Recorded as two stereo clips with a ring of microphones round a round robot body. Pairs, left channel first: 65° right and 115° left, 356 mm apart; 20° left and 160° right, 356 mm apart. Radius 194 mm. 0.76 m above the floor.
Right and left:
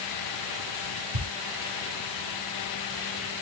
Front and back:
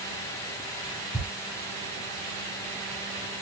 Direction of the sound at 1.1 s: 105° left.